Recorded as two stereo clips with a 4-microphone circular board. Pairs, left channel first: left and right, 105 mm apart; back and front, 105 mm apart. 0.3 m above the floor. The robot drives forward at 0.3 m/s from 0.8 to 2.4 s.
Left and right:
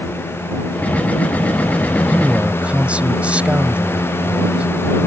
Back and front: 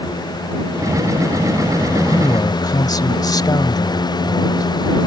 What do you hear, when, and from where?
2.1 s a man speaking: 160° right